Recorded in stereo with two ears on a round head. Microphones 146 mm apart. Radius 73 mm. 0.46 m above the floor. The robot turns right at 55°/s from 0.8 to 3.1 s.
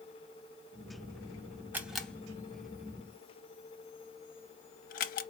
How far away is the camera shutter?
About 0.6 m.